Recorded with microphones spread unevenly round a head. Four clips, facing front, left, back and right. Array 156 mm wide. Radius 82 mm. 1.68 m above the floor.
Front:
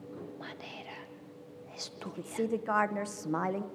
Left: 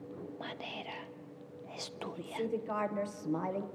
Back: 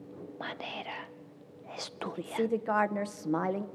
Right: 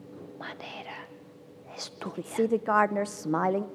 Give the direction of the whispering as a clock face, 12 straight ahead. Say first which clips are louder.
Right 5 dB, back 5 dB; 6 o'clock.